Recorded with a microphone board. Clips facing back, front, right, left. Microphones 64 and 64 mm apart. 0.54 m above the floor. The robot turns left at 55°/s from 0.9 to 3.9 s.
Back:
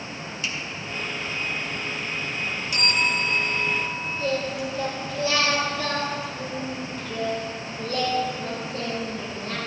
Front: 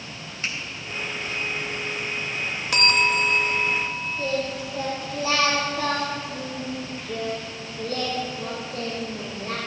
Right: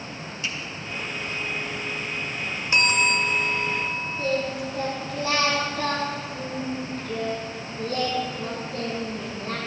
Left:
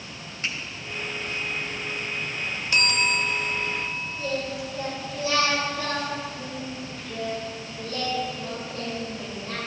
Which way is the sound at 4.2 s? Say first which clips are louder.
Back 1 dB, right 4 dB; 50° right.